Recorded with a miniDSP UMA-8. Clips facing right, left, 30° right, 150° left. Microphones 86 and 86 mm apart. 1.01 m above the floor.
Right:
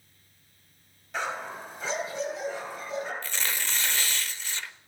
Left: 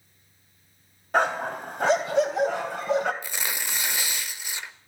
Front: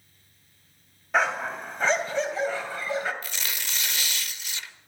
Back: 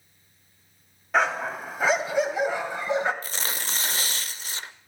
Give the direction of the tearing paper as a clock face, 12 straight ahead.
7 o'clock.